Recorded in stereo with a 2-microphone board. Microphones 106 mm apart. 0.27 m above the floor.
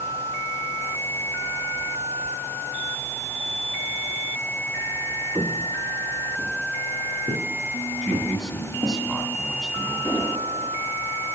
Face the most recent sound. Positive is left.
turn(degrees=20)  # may be behind; listen again after turning